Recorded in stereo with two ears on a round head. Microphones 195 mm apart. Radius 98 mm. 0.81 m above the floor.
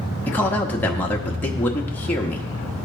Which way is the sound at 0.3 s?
10° left (ahead or behind).